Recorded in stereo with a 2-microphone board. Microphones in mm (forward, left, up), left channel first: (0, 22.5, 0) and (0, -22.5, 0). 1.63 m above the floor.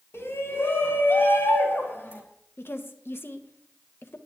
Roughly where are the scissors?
No scissors in this recording.